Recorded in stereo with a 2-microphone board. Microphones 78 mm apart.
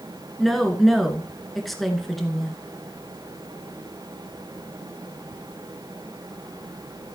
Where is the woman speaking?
Centre (ahead or behind), 2 m.